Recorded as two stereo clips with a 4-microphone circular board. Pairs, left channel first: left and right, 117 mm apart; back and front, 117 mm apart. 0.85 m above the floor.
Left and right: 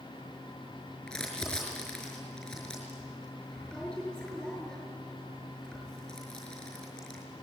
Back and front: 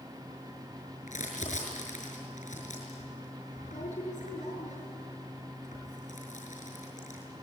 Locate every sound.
1.1 s crumpling: 175° left, 6 m